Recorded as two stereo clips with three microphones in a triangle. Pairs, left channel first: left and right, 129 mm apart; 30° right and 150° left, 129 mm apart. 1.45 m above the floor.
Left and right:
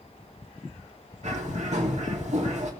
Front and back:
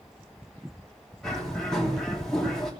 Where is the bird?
115° right, 3 m.